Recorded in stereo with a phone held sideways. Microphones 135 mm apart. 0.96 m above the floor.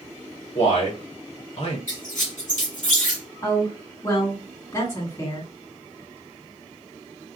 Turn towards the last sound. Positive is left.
turn(degrees=30)  # may be behind; listen again after turning